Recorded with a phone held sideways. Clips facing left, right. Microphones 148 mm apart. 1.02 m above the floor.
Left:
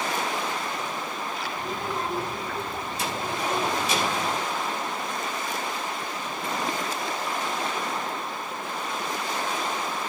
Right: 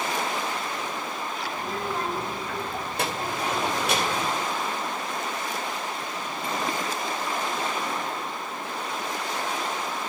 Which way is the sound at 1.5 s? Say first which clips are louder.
Right 1 dB; 75° right (ahead or behind).